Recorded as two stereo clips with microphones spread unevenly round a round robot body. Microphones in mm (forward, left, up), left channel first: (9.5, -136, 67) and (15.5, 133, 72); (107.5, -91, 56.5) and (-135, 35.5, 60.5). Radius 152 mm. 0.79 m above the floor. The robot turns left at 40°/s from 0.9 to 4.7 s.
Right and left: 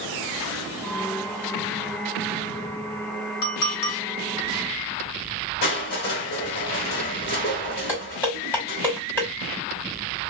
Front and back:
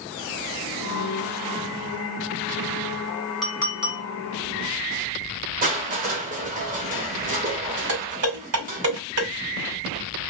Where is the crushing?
145° right, 0.9 m.